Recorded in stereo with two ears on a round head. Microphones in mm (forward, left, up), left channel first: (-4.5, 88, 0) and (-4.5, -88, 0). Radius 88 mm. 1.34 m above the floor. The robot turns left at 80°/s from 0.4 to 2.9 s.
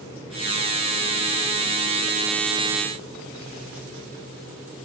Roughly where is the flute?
I don't hear a flute.